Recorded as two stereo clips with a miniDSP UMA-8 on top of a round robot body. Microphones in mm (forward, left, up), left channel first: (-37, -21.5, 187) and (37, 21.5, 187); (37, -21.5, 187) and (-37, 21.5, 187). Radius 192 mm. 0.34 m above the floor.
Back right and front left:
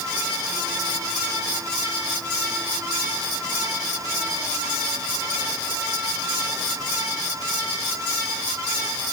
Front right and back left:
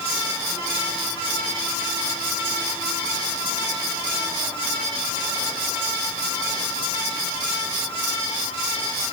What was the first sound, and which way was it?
Only background noise.